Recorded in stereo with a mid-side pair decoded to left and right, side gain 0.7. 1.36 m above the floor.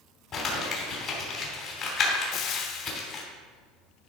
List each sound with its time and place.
0.3 s crumpling: 45° left, 3 m
2.3 s frying: 50° left, 0.9 m